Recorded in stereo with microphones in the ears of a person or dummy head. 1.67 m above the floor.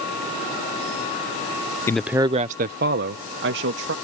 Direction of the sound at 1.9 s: 20° left (ahead or behind).